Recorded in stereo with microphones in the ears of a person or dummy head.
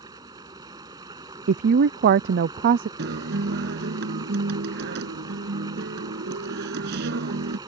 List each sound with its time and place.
0.0 s running water: 15° right (ahead or behind)
1.5 s a woman speaking: 50° right (ahead or behind)
3.0 s a guitar: 55° right (ahead or behind)